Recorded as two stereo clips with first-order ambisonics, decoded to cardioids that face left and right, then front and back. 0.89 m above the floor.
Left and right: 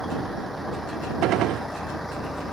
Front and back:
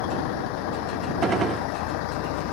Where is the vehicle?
Straight ahead; by 2.5 s 5° left.